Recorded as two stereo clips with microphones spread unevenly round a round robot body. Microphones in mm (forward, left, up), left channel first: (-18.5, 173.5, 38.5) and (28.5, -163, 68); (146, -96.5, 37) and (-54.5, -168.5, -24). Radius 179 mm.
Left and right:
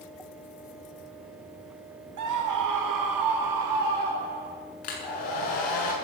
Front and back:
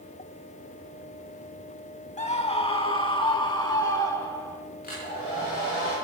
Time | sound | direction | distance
2.2 | a scream | 40° right | 4 m
4.8 | a hair dryer | 90° left | 6.5 m